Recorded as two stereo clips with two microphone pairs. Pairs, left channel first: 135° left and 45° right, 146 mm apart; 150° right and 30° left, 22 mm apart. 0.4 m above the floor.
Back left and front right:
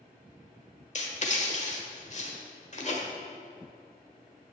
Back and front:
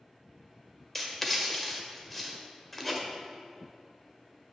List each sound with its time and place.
0.9 s writing: 135° left, 1.4 m